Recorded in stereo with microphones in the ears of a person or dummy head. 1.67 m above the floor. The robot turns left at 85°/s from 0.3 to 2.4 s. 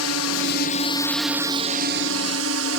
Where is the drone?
80° left; by 2.8 s 100° right.